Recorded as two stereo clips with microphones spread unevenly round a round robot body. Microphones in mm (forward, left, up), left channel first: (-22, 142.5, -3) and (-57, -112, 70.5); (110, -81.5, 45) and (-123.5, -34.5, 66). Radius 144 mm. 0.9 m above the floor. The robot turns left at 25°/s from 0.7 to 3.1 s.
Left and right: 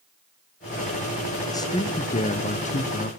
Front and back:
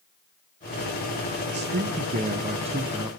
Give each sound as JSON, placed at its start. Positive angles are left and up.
{"t": 1.5, "sound": "a man speaking", "azimuth_deg": 135, "distance_m": 1.1}